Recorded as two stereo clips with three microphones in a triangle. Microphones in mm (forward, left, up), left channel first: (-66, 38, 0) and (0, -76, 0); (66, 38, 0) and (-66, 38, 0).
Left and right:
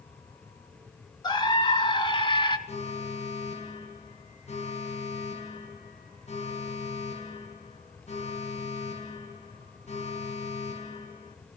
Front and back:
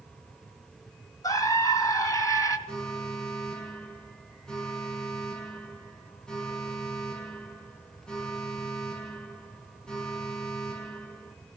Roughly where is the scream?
Ahead left.